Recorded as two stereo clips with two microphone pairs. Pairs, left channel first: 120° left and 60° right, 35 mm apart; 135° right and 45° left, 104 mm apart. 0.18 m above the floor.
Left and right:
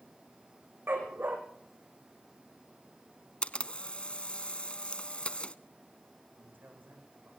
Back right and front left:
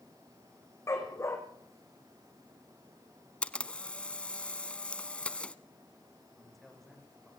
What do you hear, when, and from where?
0.9 s a dog barking: 70° right, 4.5 m
3.4 s a camera shutter: 150° left, 0.9 m
6.3 s a man speaking: 45° right, 8.5 m